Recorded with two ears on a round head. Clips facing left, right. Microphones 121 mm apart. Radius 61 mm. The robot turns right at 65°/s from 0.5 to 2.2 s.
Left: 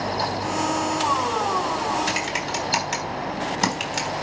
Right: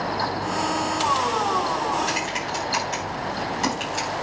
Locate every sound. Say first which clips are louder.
2.1 s typing on a keyboard: even; 75° left (ahead or behind), 4 m; by 4.1 s 70° left (ahead or behind), 4 m